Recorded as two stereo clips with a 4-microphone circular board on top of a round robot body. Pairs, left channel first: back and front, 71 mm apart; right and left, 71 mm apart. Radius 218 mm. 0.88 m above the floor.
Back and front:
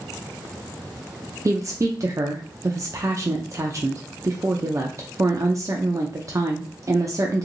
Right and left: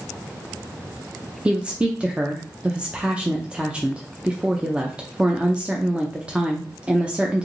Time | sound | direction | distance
1.4 | a woman speaking | 20° left | 0.7 m